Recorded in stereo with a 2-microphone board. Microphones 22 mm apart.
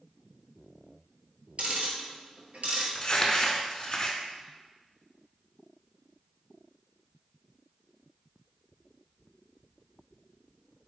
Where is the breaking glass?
I don't hear breaking glass.